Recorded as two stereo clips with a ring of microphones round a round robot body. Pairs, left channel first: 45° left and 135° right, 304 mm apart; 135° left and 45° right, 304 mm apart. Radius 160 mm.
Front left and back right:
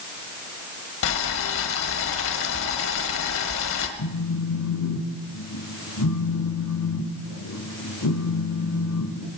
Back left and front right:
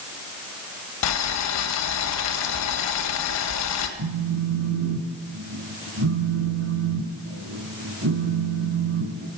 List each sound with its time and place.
1.0 s boiling: 95° left, 1.5 m
4.0 s a phone buzzing: 5° left, 1.8 m